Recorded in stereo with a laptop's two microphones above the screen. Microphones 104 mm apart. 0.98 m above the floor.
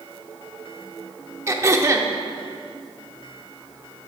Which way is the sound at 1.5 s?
30° right (ahead or behind).